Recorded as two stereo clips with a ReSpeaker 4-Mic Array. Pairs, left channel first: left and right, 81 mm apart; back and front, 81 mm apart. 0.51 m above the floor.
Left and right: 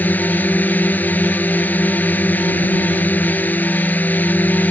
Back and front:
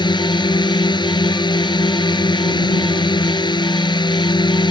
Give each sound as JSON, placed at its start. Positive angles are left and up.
{"t": 0.0, "sound": "a drone", "azimuth_deg": 160}